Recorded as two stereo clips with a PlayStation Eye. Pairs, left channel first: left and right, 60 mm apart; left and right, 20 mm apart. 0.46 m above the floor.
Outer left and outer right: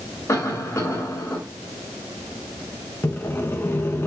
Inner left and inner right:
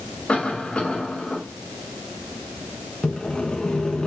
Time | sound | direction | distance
0.3 | a cough | 50° left (ahead or behind) | 2.5 m
3.0 | sawing | 40° left (ahead or behind) | 1.3 m